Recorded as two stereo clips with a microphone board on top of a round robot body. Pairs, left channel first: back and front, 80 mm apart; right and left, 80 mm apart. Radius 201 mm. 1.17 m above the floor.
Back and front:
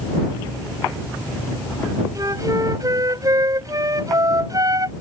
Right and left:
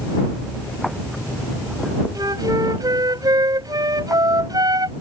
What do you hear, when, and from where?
2.1 s a flute: 50° left